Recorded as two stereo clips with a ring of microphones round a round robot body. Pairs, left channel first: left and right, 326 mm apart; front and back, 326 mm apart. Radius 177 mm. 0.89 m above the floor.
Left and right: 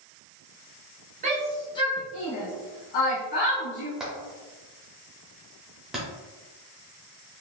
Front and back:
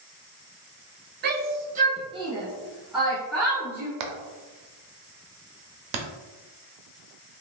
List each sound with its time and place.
1.2 s a shout: 145° right, 0.7 m; by 3.9 s 85° left, 1.8 m
4.0 s hammering: straight behind, 0.5 m